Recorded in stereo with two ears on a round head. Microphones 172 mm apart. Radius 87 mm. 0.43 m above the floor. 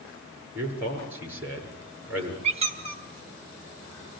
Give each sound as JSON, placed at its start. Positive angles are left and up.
{"t": 0.6, "sound": "a man speaking", "side_deg": -10, "distance_m": 7.5}
{"t": 2.4, "sound": "a squeak", "side_deg": -35, "distance_m": 3.0}